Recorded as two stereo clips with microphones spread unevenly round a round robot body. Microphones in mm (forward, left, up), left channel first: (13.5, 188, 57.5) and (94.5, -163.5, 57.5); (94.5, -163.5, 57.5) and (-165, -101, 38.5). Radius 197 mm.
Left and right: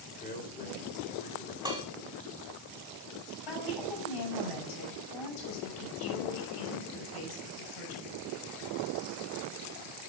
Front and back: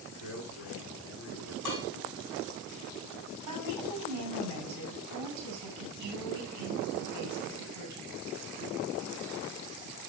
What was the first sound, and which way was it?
A man speaking, 40° left.